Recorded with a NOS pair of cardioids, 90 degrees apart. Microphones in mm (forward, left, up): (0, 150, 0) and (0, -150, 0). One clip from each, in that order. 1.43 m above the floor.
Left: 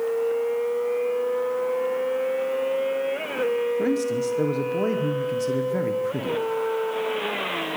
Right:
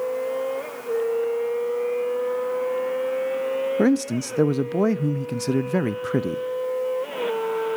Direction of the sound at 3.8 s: 55° right.